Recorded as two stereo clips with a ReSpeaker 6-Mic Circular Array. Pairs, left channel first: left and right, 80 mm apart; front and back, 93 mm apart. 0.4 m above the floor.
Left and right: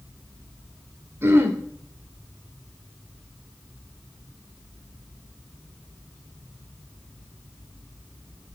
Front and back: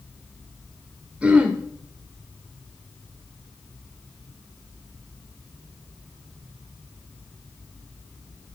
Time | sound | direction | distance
1.2 | throat clearing | 115° right | 1.3 m